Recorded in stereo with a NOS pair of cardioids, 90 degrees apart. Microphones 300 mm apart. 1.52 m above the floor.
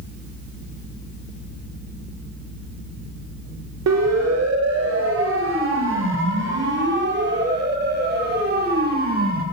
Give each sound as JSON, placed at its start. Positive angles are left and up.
{"t": 3.9, "sound": "a siren", "azimuth_deg": -60, "distance_m": 5.0}